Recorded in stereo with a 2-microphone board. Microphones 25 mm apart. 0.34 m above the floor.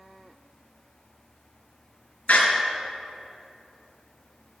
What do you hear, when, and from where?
2.3 s a door slam: 80° left, 4 m